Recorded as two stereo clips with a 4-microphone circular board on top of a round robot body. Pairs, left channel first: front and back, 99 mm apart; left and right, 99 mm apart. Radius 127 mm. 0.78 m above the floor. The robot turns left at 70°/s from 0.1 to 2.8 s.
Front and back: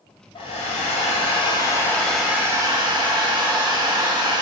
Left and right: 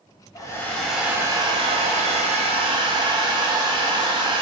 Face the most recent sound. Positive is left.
turn(degrees=-135)